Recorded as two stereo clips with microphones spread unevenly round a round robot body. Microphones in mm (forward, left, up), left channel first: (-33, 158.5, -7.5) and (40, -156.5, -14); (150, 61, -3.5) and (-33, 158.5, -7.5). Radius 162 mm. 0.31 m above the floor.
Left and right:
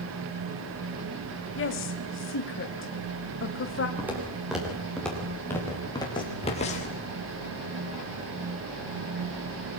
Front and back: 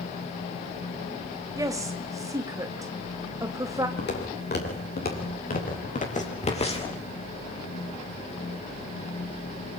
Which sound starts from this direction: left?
A woman speaking, at 1.6 s.